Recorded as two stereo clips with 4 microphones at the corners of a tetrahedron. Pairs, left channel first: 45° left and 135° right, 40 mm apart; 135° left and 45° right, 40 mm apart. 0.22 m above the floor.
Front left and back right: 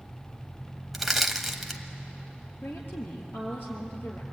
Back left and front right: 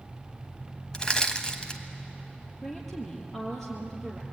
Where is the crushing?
135° left, 1.5 m.